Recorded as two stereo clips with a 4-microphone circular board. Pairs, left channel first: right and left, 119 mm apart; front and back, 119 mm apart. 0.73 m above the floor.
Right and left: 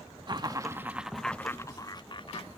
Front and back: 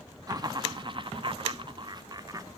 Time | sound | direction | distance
0.3 | laughter | 130° left | 0.8 m